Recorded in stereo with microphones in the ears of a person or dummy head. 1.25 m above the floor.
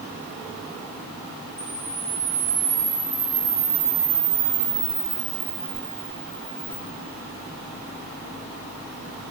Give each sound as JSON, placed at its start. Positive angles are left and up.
{"t": 1.6, "sound": "a camera shutter", "side_deg": -25, "distance_m": 0.9}